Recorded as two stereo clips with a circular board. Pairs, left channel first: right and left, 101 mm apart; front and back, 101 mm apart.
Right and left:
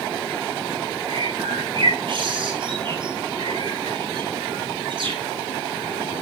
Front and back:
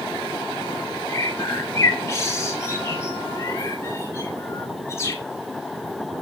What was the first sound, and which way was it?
A bird, 60° left.